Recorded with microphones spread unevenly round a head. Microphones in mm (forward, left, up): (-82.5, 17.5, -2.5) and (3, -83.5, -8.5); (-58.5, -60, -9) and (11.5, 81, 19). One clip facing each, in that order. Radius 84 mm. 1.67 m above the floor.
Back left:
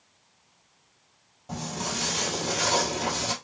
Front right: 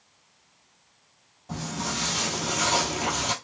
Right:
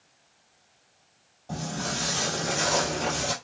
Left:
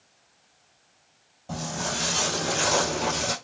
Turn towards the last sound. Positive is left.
turn(degrees=10)